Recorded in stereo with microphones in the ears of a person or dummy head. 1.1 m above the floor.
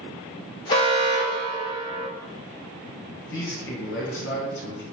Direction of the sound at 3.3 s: 60° left (ahead or behind).